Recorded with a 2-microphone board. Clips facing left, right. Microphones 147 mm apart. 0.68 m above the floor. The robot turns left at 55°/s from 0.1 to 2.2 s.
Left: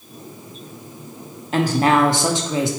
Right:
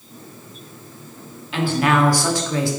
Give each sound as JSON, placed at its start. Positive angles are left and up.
{"t": 1.5, "sound": "a woman speaking", "azimuth_deg": 65, "distance_m": 1.3}